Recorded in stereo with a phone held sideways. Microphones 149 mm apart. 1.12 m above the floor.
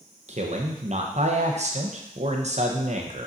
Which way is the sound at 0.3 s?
50° right (ahead or behind).